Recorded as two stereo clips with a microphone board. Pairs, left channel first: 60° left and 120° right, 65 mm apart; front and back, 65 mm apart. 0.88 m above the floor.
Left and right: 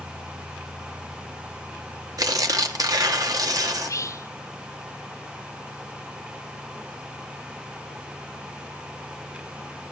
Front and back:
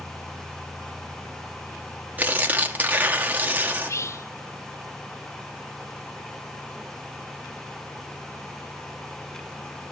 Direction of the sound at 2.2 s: 120° right.